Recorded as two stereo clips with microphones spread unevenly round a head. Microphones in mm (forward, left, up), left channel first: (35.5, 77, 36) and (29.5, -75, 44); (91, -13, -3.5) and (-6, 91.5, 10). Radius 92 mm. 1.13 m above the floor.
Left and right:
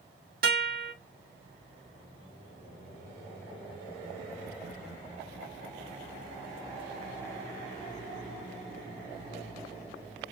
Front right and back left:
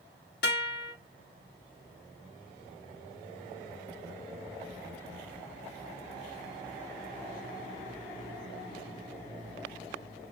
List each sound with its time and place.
0.4 s a guitar: 70° right, 1.9 m